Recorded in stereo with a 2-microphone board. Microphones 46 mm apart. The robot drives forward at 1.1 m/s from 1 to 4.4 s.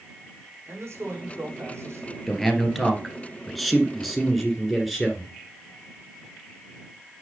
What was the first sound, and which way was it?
A man speaking, 70° right (ahead or behind).